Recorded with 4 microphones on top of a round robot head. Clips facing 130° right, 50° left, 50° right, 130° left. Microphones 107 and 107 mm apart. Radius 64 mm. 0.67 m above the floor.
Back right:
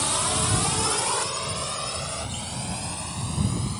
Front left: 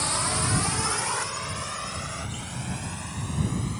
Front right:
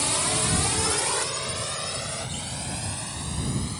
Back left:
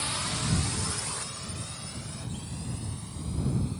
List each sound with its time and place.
0.0 s a drone: 55° right; by 3.8 s 65° right